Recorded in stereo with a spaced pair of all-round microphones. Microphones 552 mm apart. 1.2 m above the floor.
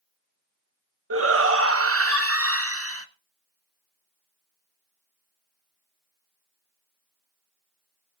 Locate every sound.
1.1 s a shout: 25° right (ahead or behind), 0.9 m